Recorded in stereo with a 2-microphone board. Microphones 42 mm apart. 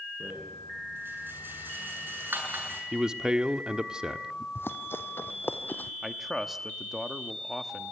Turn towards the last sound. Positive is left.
turn(degrees=-5)  # may be behind; listen again after turning